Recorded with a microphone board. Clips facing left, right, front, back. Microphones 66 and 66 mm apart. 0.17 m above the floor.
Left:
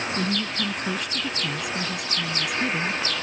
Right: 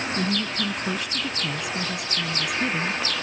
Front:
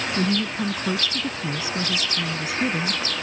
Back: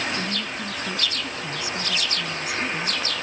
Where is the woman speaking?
Straight ahead.